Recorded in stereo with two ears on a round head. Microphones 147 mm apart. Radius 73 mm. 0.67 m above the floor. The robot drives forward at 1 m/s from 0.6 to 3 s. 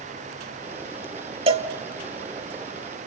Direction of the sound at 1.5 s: 35° right (ahead or behind).